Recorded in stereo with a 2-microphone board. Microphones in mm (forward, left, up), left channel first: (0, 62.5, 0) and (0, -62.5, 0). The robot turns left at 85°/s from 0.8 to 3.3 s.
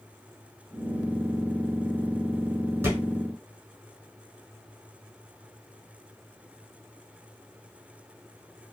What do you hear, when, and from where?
2.8 s a thud: 20° right (ahead or behind), 1.8 m; by 3.0 s 35° right (ahead or behind), 1.8 m